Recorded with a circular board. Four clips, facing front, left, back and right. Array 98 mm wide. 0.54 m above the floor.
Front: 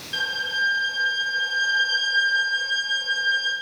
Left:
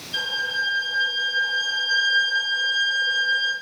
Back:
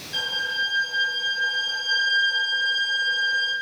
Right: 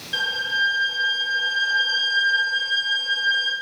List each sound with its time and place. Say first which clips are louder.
0.1 s a violin: right 2 dB, front 2 dB; 70° right, 5 m